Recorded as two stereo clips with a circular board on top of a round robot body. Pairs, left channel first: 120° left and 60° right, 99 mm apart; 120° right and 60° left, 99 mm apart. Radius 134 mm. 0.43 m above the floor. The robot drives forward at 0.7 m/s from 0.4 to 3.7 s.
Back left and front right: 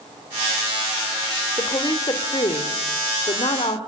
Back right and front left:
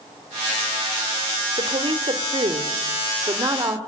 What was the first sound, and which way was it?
A woman speaking, 70° left.